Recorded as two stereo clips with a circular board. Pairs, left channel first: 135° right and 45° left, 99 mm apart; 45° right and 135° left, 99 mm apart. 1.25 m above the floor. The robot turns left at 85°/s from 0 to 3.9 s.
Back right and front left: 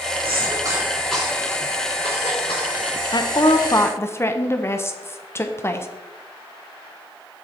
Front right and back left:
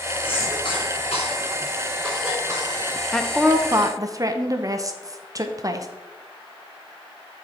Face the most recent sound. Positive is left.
turn(degrees=170)